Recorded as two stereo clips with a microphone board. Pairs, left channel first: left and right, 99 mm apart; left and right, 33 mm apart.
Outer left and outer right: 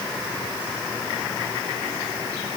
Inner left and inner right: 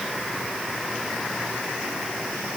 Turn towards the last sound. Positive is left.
No sound to turn to.